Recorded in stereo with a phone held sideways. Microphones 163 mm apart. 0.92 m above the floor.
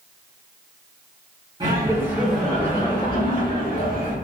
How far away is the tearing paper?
No tearing paper in this recording.